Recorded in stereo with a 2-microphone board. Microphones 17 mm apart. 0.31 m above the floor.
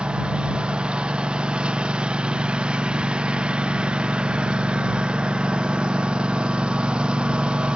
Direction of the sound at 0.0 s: 80° right.